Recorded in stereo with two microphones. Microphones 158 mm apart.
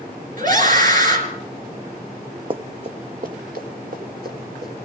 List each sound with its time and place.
0.4 s a scream: 55° right (ahead or behind), 4 m
2.5 s running footsteps: 35° right (ahead or behind), 0.7 m; by 4.7 s 70° right (ahead or behind), 3.5 m